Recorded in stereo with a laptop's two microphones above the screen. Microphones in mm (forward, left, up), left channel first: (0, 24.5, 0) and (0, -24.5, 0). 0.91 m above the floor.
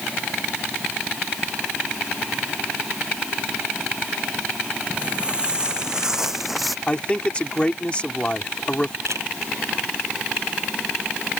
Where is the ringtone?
I don't hear a ringtone.